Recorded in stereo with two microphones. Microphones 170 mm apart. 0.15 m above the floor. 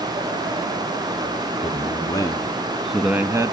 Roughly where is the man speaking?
Left.